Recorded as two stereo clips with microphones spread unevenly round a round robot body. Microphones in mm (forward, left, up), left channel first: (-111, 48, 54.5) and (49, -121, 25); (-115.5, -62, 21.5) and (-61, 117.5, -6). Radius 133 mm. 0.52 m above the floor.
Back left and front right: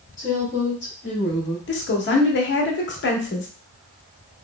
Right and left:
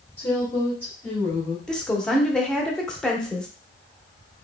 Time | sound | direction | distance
0.2 | a woman speaking | 170° left | 1.3 m
1.7 | a woman speaking | 160° left | 0.9 m